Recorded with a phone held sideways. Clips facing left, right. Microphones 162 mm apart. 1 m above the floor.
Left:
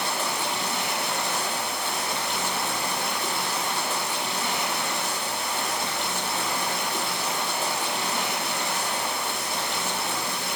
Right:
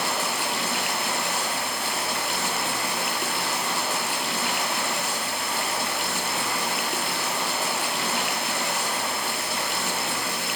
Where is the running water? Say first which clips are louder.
Right 1 dB; 75° right (ahead or behind), 7.5 m.